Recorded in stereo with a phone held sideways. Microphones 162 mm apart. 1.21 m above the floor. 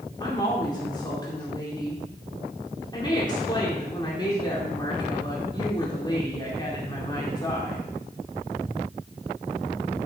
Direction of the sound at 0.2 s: 25° left (ahead or behind).